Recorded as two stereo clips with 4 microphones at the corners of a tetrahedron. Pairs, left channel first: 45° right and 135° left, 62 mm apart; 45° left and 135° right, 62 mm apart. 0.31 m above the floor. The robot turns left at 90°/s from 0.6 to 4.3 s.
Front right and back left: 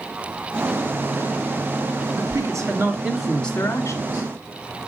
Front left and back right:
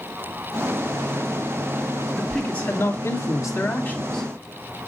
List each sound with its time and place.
2.1 s a man speaking: 150° left, 2 m; by 4.3 s 45° right, 2 m